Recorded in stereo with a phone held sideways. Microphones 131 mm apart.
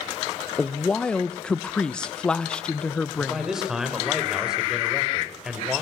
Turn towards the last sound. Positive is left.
turn(degrees=-5)  # may be behind; listen again after turning